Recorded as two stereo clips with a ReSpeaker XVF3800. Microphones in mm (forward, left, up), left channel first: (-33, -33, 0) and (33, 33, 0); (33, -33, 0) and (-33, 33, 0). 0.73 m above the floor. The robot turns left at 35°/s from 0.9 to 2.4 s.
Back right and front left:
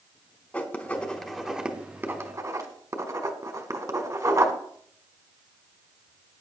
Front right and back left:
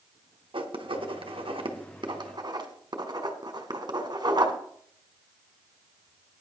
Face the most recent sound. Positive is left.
turn(degrees=95)